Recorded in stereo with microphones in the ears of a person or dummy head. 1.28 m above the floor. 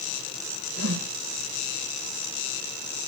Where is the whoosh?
75° right (ahead or behind), 1.0 m.